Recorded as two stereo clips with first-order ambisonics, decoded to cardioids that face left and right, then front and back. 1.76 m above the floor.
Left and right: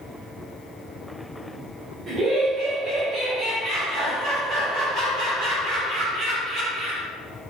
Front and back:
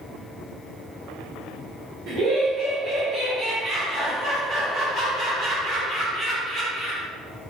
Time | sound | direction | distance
2.1 | laughter | 150° right | 1.1 m